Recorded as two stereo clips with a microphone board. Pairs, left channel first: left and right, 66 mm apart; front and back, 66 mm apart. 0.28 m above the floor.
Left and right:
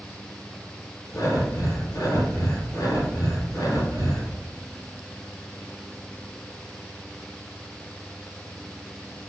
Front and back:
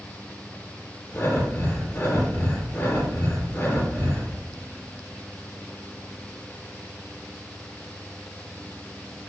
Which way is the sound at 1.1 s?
60° left.